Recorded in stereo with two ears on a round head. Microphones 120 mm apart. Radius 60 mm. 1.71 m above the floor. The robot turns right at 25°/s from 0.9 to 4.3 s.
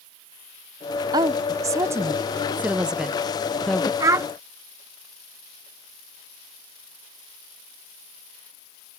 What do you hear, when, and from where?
1.1 s a woman speaking: 25° right (ahead or behind); by 3.9 s 10° left (ahead or behind)
4.0 s a child speaking: 25° right (ahead or behind); by 4.3 s 20° right (ahead or behind)